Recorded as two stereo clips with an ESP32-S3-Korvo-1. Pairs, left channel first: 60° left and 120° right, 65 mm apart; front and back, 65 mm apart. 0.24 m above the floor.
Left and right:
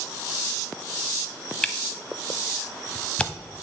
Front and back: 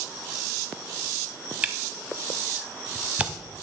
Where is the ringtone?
I don't hear a ringtone.